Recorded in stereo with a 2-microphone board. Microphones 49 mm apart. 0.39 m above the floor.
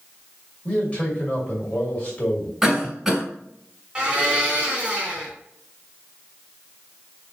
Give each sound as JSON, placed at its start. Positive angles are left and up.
{"t": 0.7, "sound": "a man speaking", "side_deg": 25, "distance_m": 2.0}
{"t": 2.6, "sound": "a cough", "side_deg": -10, "distance_m": 2.5}
{"t": 4.0, "sound": "a blender", "side_deg": -20, "distance_m": 1.9}